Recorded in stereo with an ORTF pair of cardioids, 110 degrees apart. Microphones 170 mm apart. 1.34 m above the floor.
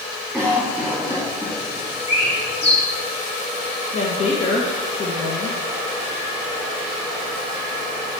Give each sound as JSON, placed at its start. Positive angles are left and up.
{"t": 0.3, "sound": "a cough", "azimuth_deg": 5, "distance_m": 3.5}
{"t": 2.1, "sound": "a bird", "azimuth_deg": 35, "distance_m": 3.0}
{"t": 3.9, "sound": "a woman speaking", "azimuth_deg": 35, "distance_m": 1.4}